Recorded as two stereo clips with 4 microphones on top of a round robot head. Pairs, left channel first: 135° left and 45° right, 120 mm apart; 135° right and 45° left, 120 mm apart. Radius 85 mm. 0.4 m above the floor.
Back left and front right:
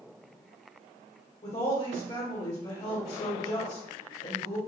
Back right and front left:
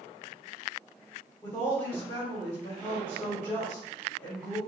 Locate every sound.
1.4 s a woman speaking: 155° left, 2.0 m